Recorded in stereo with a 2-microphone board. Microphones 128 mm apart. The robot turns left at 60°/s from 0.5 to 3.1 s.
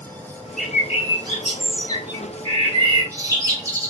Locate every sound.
0.6 s a bird: straight ahead, 1.0 m; by 3.9 s 150° right, 1.0 m